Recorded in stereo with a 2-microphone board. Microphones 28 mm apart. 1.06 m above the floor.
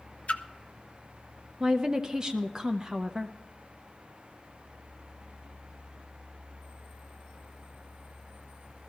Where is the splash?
50° left (ahead or behind), 0.6 m.